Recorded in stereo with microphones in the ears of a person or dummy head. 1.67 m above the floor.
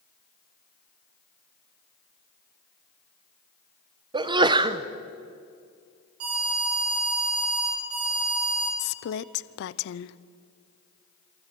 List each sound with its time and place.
4.1 s a sneeze: 15° right (ahead or behind), 0.9 m
6.2 s an alarm: 85° right, 8.5 m
8.8 s a woman speaking: 80° left, 0.7 m